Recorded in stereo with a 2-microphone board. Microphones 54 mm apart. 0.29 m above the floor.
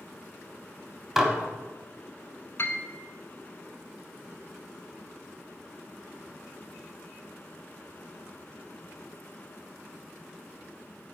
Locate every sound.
1.2 s dishes clattering: 5° right (ahead or behind), 1.1 m
2.6 s a piano: 55° left (ahead or behind), 0.7 m